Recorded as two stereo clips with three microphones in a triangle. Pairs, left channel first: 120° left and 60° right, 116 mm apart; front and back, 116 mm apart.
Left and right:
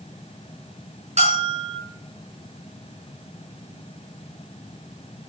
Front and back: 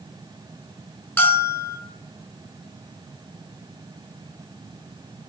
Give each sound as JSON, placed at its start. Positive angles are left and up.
{"t": 1.2, "sound": "a bell", "azimuth_deg": -75, "distance_m": 6.0}